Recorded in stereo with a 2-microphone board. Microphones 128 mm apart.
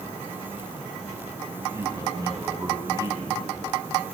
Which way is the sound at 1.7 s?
25° right (ahead or behind).